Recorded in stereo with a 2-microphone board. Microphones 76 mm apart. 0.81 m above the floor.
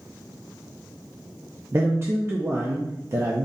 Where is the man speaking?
30° right (ahead or behind), 0.7 m.